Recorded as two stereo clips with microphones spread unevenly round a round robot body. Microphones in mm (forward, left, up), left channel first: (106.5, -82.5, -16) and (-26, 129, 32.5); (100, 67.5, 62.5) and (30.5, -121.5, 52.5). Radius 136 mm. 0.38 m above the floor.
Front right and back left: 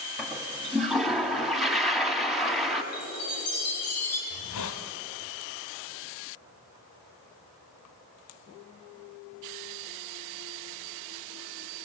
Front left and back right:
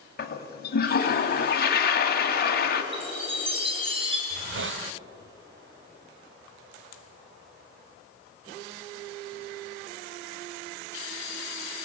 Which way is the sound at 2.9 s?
50° right.